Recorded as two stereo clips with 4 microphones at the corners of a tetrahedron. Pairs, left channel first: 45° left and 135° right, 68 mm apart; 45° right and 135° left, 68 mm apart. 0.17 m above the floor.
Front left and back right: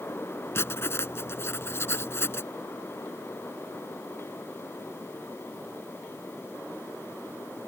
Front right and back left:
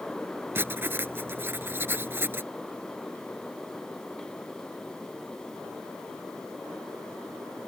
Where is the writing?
85° left.